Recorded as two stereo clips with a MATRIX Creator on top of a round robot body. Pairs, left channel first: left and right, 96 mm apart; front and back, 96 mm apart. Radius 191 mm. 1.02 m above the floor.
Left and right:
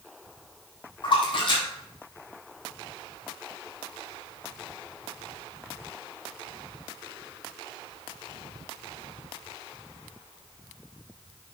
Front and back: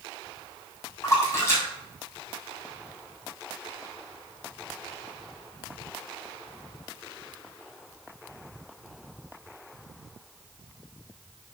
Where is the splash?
60° left, 3.5 m.